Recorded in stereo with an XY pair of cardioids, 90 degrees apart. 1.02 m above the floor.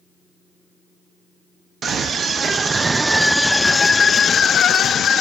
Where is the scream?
65° right, 1.2 m; by 5.2 s 70° left, 1.4 m.